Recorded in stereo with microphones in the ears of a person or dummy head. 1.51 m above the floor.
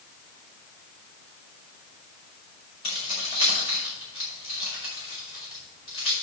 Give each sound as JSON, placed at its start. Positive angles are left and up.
{"t": 2.8, "sound": "keys jangling", "side_deg": 30, "distance_m": 6.0}